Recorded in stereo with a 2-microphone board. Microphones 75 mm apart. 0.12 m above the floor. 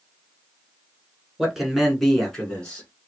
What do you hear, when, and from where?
1.4 s a man speaking: 5° right (ahead or behind), 1.2 m; by 2.9 s 15° left (ahead or behind), 1.3 m